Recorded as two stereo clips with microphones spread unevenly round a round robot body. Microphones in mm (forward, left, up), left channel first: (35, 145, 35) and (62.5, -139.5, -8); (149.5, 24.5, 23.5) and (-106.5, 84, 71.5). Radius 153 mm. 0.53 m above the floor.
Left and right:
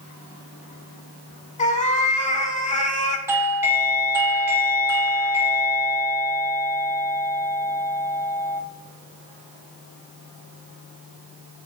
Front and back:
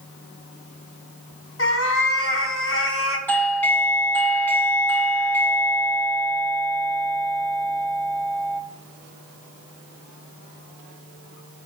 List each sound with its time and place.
1.6 s a cat meowing: 30° left, 1.4 m
3.3 s a doorbell: 45° right, 1.0 m